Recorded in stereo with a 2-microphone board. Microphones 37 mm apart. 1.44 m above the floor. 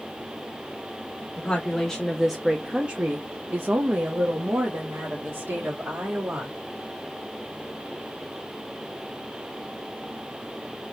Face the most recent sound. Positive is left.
turn(degrees=-80)